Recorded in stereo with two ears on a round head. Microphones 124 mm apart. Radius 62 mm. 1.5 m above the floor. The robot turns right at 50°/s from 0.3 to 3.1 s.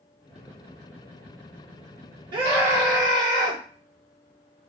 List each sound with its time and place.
2.3 s a scream: 145° right, 1.5 m; by 3.6 s 105° right, 1.5 m